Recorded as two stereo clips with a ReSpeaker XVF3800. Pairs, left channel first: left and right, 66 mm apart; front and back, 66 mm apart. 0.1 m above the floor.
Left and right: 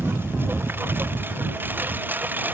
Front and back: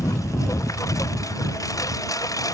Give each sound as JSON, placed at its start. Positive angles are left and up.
{"t": 0.0, "sound": "a lawn mower", "azimuth_deg": -35}